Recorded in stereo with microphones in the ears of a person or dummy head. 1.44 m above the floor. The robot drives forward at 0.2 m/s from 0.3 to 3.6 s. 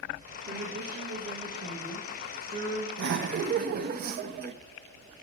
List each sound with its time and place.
0.5 s a woman speaking: 50° right (ahead or behind), 1.6 m; by 2.9 s 40° right (ahead or behind), 2.0 m
3.0 s laughter: 55° right (ahead or behind), 0.6 m; by 4.5 s 45° right (ahead or behind), 0.7 m